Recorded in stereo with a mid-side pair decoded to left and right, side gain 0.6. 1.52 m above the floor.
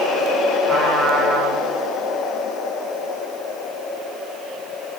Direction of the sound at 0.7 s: 40° right.